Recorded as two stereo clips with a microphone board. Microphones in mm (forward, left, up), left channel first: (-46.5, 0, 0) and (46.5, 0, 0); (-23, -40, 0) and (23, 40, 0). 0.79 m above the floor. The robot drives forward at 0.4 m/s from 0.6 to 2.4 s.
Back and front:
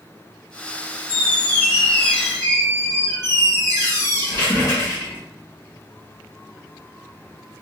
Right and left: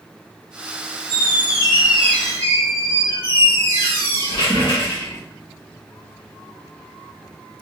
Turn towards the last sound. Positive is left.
turn(degrees=-120)